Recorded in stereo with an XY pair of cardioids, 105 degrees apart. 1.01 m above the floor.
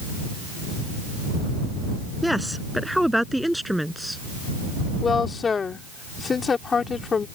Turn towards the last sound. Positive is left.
turn(degrees=35)